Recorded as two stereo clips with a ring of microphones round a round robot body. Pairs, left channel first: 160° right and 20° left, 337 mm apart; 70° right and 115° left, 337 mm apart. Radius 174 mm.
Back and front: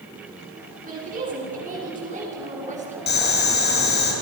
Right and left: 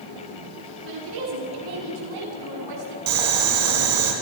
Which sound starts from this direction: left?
A woman speaking, at 0.8 s.